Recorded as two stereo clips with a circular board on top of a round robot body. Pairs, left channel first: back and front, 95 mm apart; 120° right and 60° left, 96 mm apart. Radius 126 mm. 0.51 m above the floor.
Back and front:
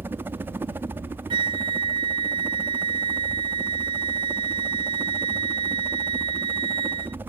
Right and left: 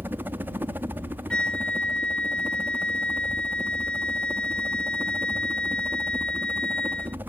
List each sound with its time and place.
0.0 s a helicopter: 25° left
1.3 s a flute: 40° right